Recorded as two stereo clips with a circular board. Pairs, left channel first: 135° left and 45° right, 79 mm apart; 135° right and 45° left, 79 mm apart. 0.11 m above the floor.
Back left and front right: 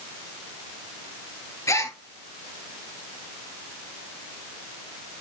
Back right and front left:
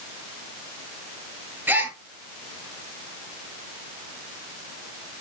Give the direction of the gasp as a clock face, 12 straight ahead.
9 o'clock.